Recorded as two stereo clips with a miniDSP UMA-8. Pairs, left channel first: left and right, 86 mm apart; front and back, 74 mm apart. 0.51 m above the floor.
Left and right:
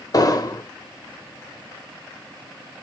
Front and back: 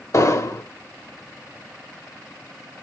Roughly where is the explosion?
Ahead left.